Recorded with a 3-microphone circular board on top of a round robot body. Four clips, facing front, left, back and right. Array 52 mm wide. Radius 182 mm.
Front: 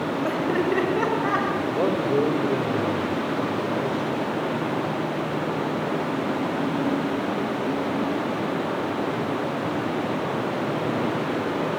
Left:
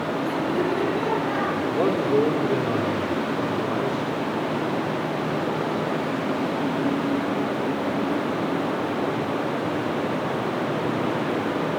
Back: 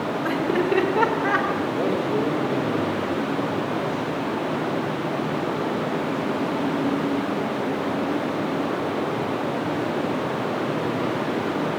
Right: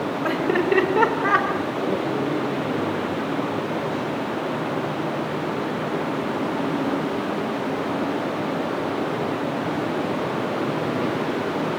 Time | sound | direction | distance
0.2 | laughter | 85° right | 4.5 m
1.7 | a man speaking | 45° left | 4.5 m